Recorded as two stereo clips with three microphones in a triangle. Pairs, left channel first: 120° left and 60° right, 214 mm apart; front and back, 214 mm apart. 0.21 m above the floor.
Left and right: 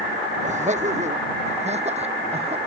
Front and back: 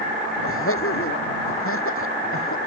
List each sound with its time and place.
0.4 s laughter: 5° right; by 2.6 s straight ahead